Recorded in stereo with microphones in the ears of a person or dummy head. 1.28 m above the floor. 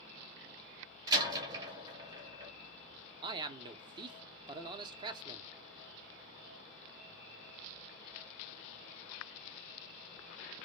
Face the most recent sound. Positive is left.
turn(degrees=-25)  # may be behind; listen again after turning